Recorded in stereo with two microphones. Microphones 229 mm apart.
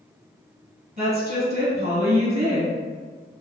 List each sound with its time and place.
1.0 s a woman speaking: 40° right (ahead or behind), 2.0 m